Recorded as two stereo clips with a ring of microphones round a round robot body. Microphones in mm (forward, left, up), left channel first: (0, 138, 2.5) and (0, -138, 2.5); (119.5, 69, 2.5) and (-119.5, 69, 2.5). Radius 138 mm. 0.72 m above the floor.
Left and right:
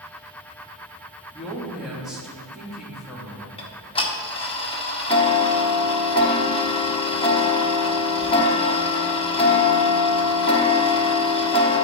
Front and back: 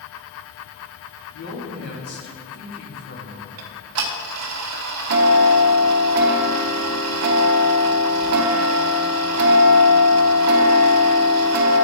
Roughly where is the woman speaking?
Ahead.